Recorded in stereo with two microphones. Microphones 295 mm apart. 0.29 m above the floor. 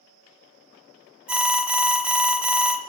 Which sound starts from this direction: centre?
An alarm, at 1.3 s.